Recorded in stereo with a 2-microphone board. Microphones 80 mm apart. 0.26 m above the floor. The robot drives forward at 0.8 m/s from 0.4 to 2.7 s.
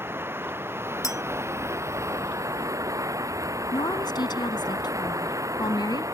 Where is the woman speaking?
60° left (ahead or behind).